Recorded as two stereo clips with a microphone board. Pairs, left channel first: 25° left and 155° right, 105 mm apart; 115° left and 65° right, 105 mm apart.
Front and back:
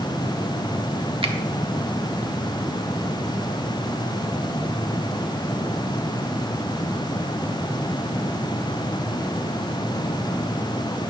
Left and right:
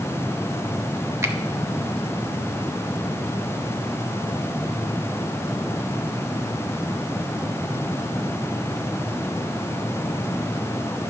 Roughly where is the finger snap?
Behind right.